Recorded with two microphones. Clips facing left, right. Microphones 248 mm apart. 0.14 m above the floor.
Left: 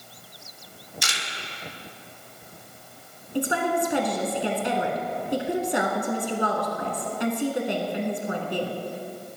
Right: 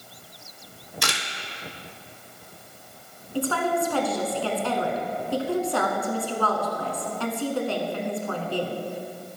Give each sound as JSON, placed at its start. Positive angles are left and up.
{"t": 1.0, "sound": "a camera shutter", "side_deg": -70, "distance_m": 1.1}
{"t": 3.4, "sound": "a woman speaking", "side_deg": 20, "distance_m": 1.3}